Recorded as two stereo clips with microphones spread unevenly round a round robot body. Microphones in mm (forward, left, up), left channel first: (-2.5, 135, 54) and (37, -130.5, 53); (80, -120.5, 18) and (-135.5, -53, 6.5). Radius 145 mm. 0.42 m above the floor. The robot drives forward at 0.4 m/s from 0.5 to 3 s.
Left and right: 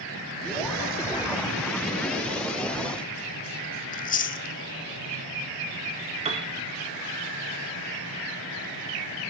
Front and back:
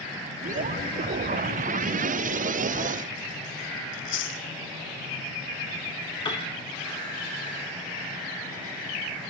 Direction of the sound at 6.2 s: 65° right.